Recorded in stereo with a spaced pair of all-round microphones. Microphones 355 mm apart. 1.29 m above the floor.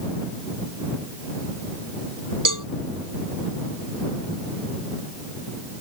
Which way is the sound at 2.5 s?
55° right (ahead or behind).